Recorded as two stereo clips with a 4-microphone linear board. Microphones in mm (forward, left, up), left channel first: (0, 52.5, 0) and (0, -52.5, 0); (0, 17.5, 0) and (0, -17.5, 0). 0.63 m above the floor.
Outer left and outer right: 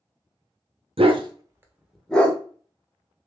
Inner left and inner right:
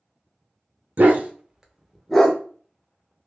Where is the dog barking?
60° right (ahead or behind), 0.7 m; by 2.4 s 15° left (ahead or behind), 0.9 m.